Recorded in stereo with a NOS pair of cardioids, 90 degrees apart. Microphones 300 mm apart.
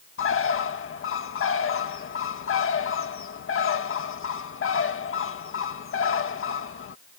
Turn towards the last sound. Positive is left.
turn(degrees=50)